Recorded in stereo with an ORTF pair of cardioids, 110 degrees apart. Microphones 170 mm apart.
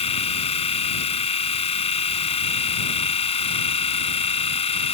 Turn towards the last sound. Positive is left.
turn(degrees=35)